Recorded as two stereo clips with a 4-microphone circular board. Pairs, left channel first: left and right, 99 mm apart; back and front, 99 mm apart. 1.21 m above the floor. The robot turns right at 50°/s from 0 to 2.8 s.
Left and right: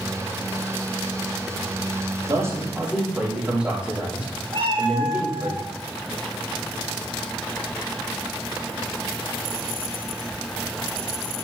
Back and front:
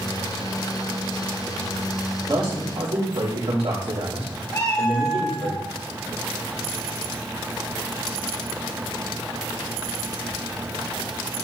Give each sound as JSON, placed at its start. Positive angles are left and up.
{"t": 2.3, "sound": "a man speaking", "azimuth_deg": -40, "distance_m": 3.0}
{"t": 4.5, "sound": "a cat meowing", "azimuth_deg": -125, "distance_m": 1.9}